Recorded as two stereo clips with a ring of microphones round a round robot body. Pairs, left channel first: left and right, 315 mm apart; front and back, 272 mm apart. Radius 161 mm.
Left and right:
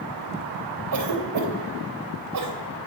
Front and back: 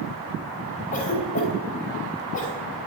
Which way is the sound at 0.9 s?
65° right.